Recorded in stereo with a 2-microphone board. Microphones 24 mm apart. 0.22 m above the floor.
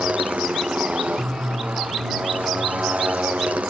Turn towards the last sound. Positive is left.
turn(degrees=-80)